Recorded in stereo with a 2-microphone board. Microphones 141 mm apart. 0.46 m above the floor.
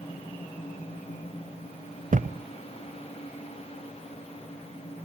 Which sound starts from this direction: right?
A thud, at 2.1 s.